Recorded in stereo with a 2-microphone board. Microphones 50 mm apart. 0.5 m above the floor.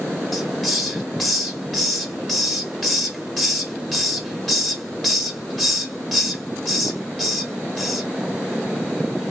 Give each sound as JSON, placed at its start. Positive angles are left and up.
{"t": 0.3, "sound": "a hiss", "side_deg": 5, "distance_m": 1.2}